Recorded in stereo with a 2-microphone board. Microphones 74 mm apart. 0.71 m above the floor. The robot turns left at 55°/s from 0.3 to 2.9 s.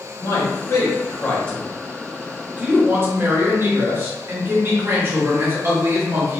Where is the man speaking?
90° left, 1.1 m; by 6.4 s 55° right, 1.1 m.